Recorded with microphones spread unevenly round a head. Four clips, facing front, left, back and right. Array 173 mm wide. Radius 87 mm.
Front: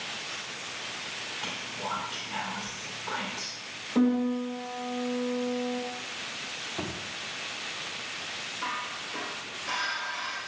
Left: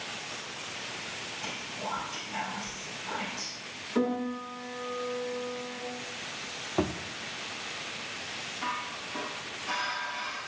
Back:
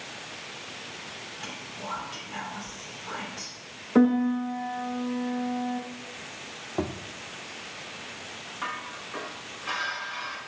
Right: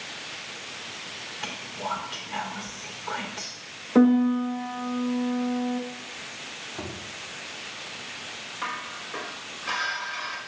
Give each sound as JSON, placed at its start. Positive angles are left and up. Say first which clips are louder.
{"t": 1.4, "sound": "whispering", "louder": "right 5 dB, front 2 dB", "azimuth_deg": -70, "distance_m": 3.0}
{"t": 4.0, "sound": "a piano", "louder": "right 11 dB, back 4 dB", "azimuth_deg": -135, "distance_m": 1.1}
{"t": 6.8, "sound": "a thud", "louder": "left 8 dB, back 7 dB", "azimuth_deg": 110, "distance_m": 0.9}
{"t": 8.6, "sound": "dishes clattering", "louder": "right 1 dB, even", "azimuth_deg": -100, "distance_m": 3.5}